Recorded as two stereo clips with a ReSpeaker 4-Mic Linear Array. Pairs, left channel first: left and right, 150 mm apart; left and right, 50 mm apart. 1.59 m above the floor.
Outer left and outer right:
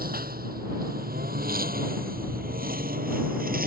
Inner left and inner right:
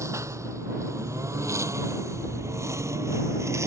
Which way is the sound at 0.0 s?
80° right.